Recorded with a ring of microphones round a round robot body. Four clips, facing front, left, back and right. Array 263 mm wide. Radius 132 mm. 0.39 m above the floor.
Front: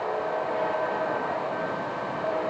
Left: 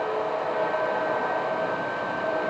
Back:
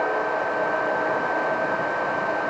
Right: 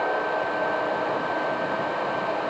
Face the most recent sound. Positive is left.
No sound to turn to.